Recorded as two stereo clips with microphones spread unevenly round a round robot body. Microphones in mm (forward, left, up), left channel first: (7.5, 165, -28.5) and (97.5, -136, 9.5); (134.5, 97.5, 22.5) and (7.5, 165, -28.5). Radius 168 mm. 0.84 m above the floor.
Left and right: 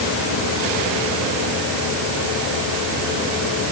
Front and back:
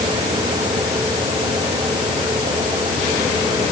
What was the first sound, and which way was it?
Only background noise.